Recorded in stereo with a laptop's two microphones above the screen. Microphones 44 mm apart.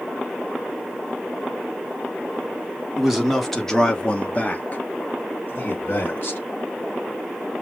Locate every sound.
3.0 s a man speaking: 10° right (ahead or behind), 1.2 m; by 6.4 s 55° left (ahead or behind), 1.9 m